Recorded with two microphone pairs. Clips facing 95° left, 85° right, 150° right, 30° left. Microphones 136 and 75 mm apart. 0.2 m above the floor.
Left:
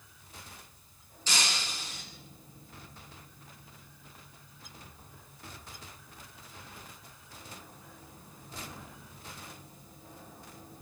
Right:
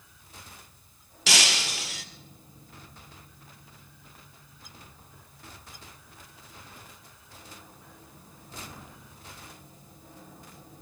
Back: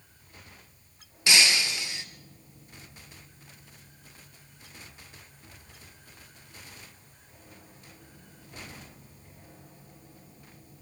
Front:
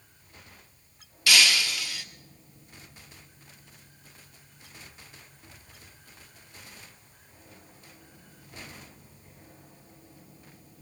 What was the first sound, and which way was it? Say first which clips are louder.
Breaking glass: right 5 dB, front 1 dB; 85° right.